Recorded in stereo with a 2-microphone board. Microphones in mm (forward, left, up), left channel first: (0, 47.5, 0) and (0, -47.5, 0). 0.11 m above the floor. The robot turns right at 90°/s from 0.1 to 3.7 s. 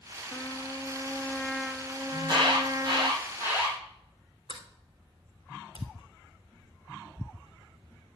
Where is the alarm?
145° right, 5 m; by 3.8 s 5° right, 5 m.